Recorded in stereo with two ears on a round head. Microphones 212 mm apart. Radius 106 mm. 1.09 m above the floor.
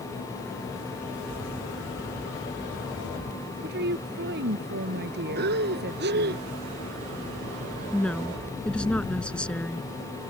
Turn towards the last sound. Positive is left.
turn(degrees=5)  # may be behind; listen again after turning